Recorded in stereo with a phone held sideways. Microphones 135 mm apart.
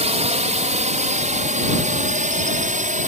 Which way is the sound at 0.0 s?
55° right (ahead or behind).